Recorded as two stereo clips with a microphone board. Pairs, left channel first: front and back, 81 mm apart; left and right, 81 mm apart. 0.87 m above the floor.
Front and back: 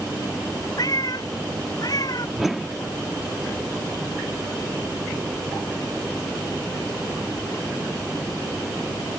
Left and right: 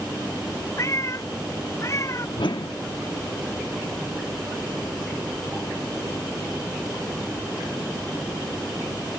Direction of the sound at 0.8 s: 40° left.